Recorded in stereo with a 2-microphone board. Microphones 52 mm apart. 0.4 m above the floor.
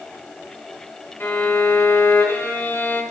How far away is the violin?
About 3 m.